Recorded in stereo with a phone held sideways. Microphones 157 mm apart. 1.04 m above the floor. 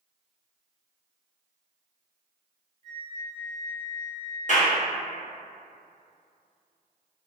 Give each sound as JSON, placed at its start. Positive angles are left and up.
{"t": 2.8, "sound": "a flute", "side_deg": -50, "distance_m": 1.3}
{"t": 4.5, "sound": "a clap", "side_deg": 55, "distance_m": 0.8}